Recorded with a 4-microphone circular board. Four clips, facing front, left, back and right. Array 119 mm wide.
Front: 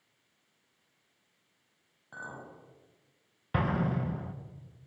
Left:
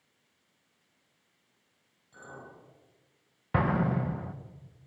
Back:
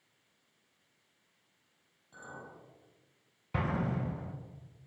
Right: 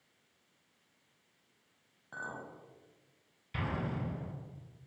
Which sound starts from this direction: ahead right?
A clink, at 2.1 s.